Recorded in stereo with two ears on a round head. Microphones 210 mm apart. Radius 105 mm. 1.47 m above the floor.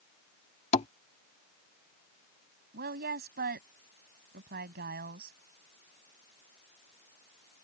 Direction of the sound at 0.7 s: 30° left (ahead or behind).